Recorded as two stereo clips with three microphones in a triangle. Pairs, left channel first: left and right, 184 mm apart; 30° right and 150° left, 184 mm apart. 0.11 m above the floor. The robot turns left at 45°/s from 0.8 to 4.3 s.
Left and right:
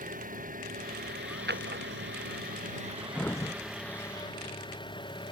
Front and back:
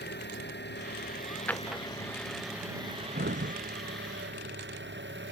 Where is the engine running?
50° right; by 5.3 s 155° left.